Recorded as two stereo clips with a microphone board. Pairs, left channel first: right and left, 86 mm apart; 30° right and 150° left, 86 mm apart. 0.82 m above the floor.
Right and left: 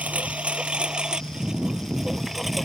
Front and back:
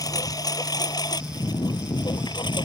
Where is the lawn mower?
15° left; by 2.7 s straight ahead.